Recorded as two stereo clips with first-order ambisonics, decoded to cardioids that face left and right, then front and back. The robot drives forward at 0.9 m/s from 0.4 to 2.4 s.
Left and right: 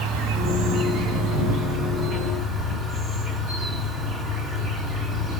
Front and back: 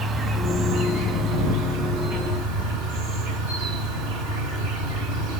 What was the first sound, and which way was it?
An insect, 115° right.